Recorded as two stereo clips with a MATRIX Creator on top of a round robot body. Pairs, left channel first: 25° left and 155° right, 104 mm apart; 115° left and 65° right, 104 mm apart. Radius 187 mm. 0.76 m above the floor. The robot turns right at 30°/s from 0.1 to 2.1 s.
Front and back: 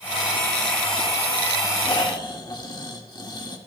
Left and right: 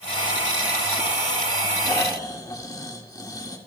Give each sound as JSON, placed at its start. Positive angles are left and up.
{"t": 1.8, "sound": "snoring", "azimuth_deg": 55, "distance_m": 2.5}